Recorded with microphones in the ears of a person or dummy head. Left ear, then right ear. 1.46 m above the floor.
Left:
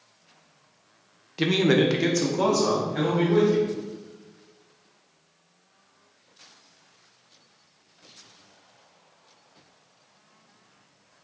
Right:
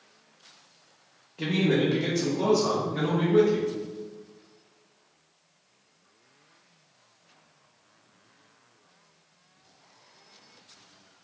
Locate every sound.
1.4 s a man speaking: 45° left (ahead or behind), 0.5 m; by 3.7 s 35° left (ahead or behind), 1.4 m